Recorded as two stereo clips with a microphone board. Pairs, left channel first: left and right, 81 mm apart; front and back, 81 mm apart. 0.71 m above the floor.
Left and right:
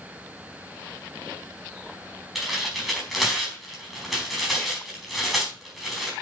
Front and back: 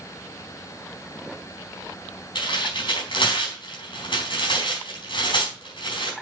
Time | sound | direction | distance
2.4 | tearing paper | 5° right | 4.5 m